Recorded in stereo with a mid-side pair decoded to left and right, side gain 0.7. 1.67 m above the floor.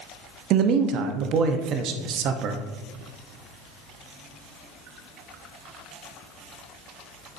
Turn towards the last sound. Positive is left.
turn(degrees=-50)